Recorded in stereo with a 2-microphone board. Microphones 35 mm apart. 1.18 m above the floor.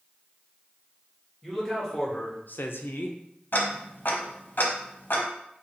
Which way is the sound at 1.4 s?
5° left (ahead or behind).